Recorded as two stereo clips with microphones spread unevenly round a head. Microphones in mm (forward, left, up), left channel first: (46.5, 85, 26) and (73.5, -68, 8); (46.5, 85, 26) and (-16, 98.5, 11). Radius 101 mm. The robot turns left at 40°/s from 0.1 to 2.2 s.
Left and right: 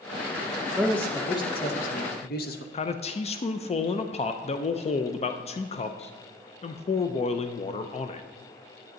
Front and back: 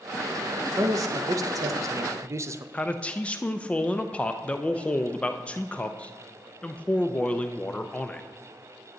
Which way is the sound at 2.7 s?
70° left.